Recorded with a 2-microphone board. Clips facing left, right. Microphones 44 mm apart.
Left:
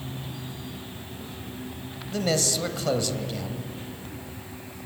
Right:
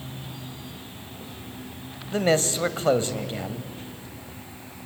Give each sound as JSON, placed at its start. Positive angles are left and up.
{"t": 2.1, "sound": "a man speaking", "side_deg": -30, "distance_m": 1.5}